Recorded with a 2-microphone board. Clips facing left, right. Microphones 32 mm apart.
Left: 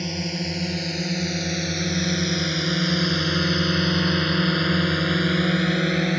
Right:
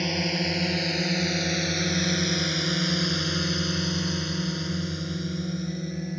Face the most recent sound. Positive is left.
turn(degrees=65)  # may be behind; listen again after turning